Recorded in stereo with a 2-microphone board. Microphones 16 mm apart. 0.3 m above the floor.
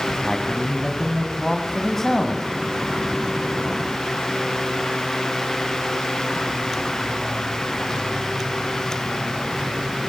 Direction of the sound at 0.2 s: 25° left (ahead or behind).